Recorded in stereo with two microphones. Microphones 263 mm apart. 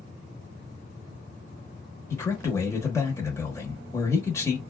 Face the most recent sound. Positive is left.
turn(degrees=10)  # may be behind; listen again after turning